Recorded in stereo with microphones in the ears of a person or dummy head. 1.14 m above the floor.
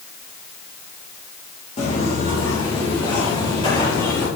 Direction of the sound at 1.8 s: 35° left (ahead or behind).